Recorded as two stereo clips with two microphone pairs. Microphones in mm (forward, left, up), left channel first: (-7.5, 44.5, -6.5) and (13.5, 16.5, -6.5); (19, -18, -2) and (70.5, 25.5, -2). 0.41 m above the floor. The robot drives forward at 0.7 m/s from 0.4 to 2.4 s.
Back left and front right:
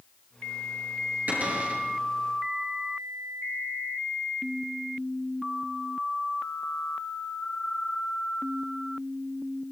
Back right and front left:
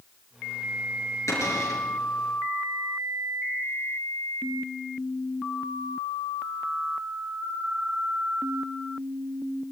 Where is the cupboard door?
95° right, 7.5 m.